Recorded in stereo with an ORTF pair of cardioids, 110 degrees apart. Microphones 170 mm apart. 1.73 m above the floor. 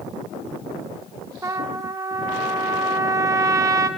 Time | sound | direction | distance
1.4 | a trumpet | 20° right | 1.3 m